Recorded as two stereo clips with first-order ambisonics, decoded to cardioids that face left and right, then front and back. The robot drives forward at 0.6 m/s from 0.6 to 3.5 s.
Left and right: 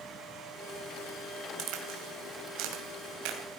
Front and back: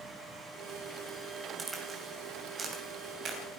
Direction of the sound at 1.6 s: 105° right.